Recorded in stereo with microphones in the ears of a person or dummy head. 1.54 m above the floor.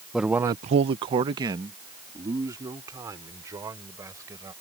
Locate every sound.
0.1 s a man speaking: 5° right (ahead or behind); by 4.5 s 20° right (ahead or behind)